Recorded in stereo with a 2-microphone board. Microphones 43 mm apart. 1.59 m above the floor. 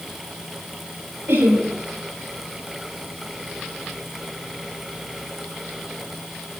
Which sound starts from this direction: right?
Laughter, at 1.3 s.